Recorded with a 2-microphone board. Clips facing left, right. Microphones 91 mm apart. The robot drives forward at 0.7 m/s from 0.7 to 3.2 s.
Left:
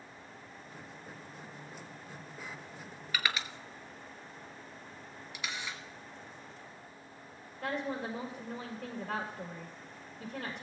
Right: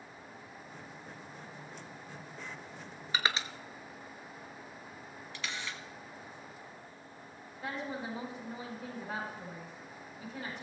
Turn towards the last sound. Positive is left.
turn(degrees=70)  # may be behind; listen again after turning